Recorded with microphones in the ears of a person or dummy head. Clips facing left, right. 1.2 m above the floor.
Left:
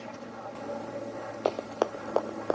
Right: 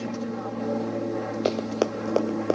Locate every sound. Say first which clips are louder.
0.0 s an aircraft: right 10 dB; 60° right (ahead or behind)
1.4 s running footsteps: right 3 dB; 35° right (ahead or behind); by 2.5 s 45° right (ahead or behind)